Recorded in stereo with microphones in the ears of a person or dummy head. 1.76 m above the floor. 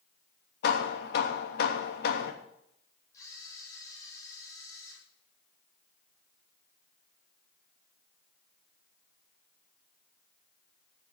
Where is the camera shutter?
15° left (ahead or behind), 8.5 m.